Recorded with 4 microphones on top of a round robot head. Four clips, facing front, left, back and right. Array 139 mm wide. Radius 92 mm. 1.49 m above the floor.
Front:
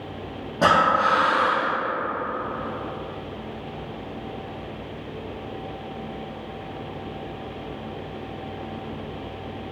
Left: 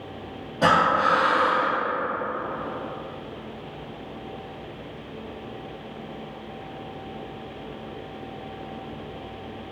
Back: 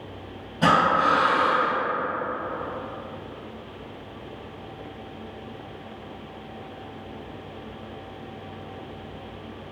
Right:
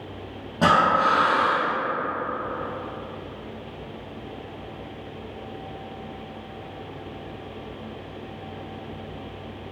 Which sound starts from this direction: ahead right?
Breathing, at 0.6 s.